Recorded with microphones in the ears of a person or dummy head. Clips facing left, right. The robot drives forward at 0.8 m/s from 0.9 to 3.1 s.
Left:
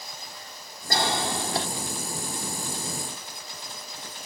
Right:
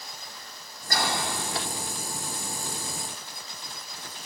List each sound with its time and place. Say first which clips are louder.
0.9 s a cough: left 3 dB; 30° left (ahead or behind), 4 m; by 1.7 s 35° left (ahead or behind), 3 m